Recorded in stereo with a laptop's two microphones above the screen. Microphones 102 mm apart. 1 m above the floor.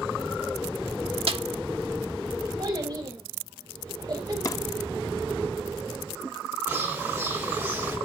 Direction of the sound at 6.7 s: 15° right (ahead or behind).